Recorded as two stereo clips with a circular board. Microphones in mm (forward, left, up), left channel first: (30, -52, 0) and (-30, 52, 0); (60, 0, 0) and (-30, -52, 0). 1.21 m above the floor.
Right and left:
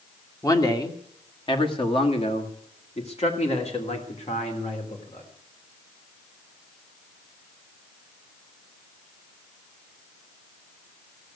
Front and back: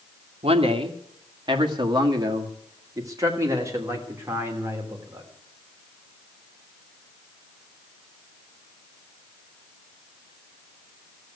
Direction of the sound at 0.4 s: 120° right.